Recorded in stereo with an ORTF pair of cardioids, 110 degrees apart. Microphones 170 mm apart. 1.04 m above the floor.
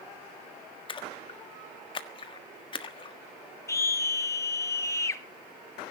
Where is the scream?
20° left, 1.7 m.